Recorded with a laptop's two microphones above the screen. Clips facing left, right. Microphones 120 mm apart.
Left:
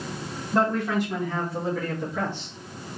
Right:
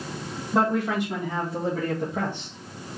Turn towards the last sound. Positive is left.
turn(degrees=-50)  # may be behind; listen again after turning